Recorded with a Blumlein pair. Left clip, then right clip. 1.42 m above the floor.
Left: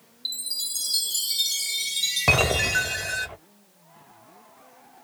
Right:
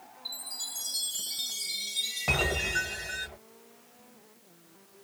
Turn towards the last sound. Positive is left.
turn(degrees=35)